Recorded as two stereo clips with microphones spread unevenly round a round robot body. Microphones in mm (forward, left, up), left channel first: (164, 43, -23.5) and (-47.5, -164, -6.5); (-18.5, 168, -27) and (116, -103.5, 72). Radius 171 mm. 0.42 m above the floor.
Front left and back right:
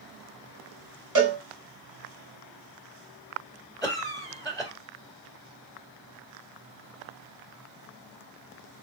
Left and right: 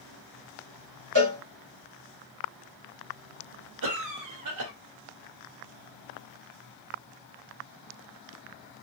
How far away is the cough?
About 1.7 m.